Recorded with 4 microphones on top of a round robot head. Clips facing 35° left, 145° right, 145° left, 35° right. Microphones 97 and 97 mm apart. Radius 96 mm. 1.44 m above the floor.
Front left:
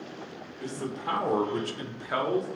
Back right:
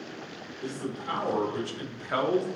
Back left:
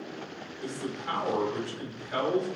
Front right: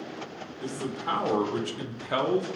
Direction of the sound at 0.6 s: 25° left.